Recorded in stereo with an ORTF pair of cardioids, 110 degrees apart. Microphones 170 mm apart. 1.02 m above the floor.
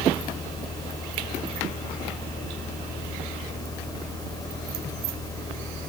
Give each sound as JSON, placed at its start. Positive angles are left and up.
{"t": 0.0, "sound": "a fan", "azimuth_deg": 20}